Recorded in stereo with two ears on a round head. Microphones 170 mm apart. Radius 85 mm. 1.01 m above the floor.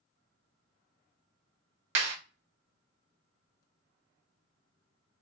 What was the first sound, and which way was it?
A clap, 75° right (ahead or behind).